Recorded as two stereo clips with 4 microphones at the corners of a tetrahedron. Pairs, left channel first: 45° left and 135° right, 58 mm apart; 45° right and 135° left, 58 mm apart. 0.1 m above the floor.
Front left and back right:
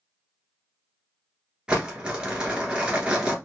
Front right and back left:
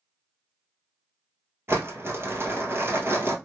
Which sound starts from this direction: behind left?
Crumpling, at 1.7 s.